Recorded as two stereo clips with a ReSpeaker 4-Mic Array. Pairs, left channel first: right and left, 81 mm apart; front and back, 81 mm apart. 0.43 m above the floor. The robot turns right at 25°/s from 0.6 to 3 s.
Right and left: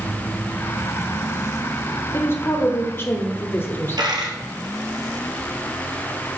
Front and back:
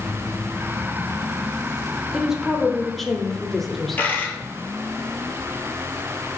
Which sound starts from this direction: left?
A dropped coin, at 4.0 s.